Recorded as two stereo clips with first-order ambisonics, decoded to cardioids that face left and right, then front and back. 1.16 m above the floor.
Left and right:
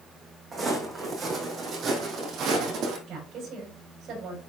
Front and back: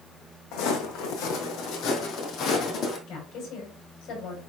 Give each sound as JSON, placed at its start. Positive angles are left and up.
{"t": 0.5, "sound": "footsteps", "azimuth_deg": -20, "distance_m": 3.0}
{"t": 3.1, "sound": "a woman speaking", "azimuth_deg": -40, "distance_m": 6.0}